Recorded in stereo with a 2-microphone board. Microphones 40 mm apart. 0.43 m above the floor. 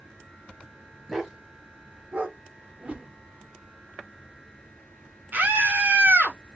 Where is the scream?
55° right (ahead or behind), 1.8 m.